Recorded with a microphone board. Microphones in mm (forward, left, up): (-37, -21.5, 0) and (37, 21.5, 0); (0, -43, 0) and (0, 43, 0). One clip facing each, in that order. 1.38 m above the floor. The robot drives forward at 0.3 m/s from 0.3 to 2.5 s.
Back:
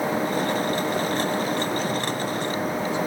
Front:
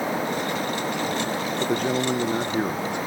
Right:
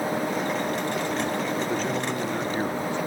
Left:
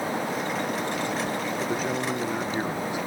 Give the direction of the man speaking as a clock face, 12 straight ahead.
12 o'clock.